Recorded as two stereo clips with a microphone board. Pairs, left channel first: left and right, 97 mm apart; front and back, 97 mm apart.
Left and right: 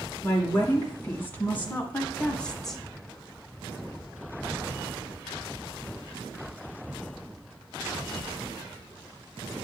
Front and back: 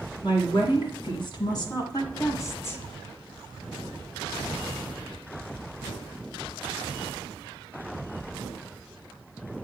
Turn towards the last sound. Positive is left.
turn(degrees=5)